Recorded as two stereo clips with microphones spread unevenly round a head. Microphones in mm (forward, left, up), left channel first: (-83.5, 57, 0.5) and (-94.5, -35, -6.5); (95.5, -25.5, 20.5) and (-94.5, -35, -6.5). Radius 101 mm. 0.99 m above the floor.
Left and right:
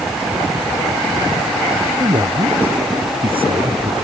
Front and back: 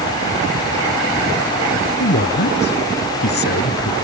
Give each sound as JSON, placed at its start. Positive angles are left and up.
{"t": 2.0, "sound": "a man speaking", "azimuth_deg": -30}